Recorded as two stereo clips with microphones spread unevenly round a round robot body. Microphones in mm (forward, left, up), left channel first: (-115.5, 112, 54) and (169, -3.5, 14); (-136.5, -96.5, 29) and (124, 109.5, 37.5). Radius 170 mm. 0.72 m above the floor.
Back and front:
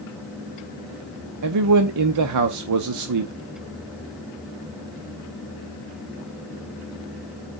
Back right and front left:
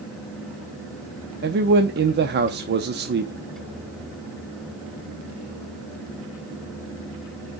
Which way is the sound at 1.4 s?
20° right.